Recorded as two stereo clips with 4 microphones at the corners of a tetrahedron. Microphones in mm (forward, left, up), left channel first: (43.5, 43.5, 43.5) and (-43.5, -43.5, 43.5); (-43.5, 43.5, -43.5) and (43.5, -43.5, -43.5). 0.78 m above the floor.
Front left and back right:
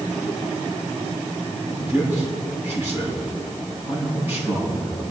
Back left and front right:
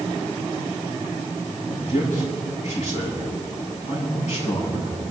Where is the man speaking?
155° left, 8 m.